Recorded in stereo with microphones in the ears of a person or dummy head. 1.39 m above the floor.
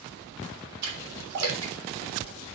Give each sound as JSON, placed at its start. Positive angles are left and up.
{"t": 0.8, "sound": "a splash", "side_deg": -80, "distance_m": 3.0}